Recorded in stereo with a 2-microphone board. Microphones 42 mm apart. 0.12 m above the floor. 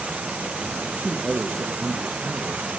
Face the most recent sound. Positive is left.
turn(degrees=-35)  # may be behind; listen again after turning